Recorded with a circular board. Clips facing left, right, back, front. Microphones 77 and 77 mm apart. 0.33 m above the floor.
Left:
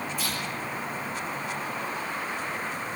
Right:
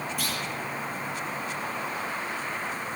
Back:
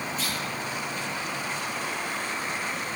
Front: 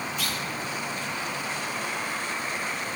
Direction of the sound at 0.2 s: 125° right.